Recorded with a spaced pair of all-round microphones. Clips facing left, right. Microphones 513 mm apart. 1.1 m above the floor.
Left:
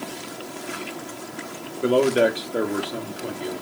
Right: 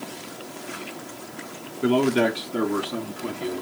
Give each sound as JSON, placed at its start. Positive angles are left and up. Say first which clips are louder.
{"t": 1.8, "sound": "a man speaking", "louder": "left 1 dB", "side_deg": -10, "distance_m": 1.0}